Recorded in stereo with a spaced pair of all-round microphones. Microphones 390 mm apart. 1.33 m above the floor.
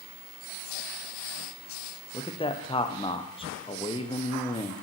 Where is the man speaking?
15° left (ahead or behind), 0.6 m.